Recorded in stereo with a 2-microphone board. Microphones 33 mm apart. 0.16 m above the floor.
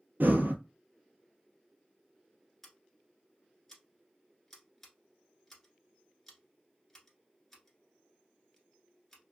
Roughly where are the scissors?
Centre.